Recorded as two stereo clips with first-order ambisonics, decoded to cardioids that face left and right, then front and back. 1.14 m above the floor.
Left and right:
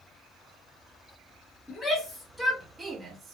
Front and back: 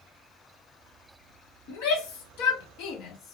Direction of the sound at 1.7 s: 5° left.